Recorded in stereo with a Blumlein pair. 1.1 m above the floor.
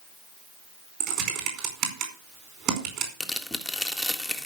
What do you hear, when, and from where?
1.0 s typing on a keyboard: 35° right, 4.5 m
3.2 s tearing paper: 5° left, 1.6 m